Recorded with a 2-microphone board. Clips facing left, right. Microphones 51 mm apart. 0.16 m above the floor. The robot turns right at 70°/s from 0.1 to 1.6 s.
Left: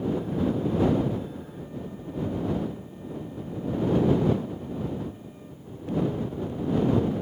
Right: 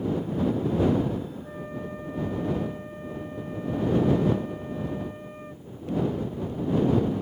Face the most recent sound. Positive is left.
turn(degrees=-55)  # may be behind; listen again after turning